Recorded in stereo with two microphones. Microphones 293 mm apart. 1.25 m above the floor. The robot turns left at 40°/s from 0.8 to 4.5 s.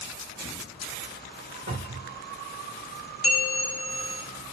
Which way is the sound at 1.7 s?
55° right (ahead or behind).